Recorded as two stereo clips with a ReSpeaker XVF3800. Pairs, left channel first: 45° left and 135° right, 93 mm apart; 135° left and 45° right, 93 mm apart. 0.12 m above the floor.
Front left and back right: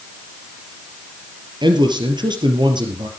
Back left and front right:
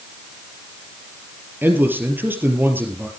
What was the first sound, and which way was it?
A man speaking, 110° right.